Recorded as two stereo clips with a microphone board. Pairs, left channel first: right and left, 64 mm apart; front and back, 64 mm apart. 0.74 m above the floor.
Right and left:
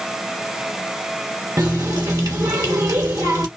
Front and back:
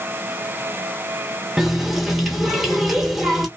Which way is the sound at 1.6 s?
95° left.